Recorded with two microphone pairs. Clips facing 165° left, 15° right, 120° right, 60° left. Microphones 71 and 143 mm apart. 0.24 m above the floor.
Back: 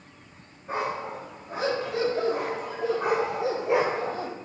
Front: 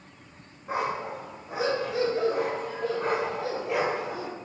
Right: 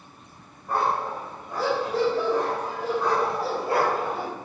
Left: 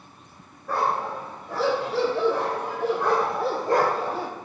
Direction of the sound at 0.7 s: 60° left.